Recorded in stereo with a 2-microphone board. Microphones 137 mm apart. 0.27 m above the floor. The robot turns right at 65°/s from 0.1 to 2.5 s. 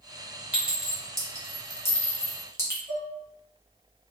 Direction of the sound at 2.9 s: 25° left (ahead or behind).